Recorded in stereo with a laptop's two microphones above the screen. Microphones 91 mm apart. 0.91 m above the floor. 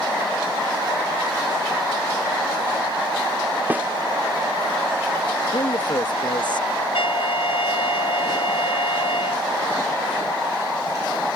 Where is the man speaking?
55° left (ahead or behind).